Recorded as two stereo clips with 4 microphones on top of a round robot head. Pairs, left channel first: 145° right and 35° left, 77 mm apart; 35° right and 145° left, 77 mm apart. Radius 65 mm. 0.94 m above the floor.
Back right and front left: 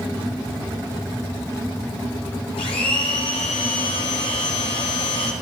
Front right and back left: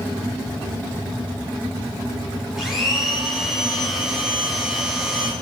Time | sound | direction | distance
2.6 | a blender | 130° right | 1.7 m